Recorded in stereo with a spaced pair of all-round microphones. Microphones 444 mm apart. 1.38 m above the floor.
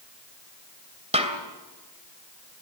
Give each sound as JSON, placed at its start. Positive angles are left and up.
{"t": 1.1, "sound": "a snare drum", "side_deg": -15, "distance_m": 2.5}